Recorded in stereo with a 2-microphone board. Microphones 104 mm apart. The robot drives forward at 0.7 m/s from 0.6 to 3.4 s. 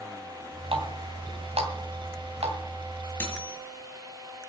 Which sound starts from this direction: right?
A running tap, at 0.7 s.